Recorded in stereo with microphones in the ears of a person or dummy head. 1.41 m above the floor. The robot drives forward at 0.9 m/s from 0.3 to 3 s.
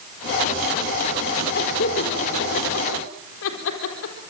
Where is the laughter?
65° left (ahead or behind), 4 m; by 4.2 s 85° left, 3.5 m.